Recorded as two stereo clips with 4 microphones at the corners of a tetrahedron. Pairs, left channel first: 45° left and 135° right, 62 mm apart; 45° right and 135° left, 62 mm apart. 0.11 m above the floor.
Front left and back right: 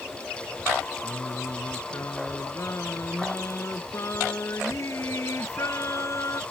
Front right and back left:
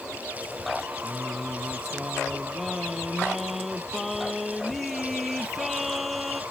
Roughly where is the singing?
Ahead left.